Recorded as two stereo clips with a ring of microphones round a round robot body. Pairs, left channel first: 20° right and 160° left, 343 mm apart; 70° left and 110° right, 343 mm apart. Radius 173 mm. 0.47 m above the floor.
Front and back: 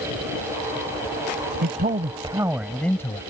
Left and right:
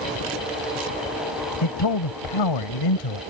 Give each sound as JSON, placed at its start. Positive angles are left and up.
{"t": 1.6, "sound": "a man speaking", "azimuth_deg": 95}